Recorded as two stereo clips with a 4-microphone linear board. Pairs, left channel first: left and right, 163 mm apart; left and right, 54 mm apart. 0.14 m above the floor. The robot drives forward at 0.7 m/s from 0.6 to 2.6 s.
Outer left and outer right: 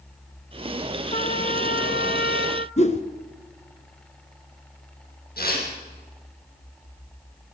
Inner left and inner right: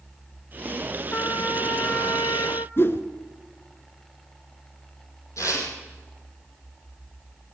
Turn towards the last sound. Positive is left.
turn(degrees=65)  # may be behind; listen again after turning